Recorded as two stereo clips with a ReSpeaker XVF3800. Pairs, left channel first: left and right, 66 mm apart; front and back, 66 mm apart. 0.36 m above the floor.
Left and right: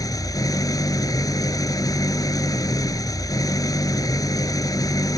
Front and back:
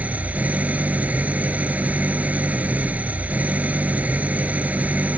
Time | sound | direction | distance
0.0 | an engine running | 115° left | ?